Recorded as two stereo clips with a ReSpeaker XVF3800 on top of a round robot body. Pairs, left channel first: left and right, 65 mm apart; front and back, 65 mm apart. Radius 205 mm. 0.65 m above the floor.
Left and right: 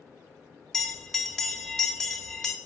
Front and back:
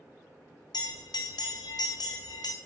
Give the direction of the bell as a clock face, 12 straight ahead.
12 o'clock.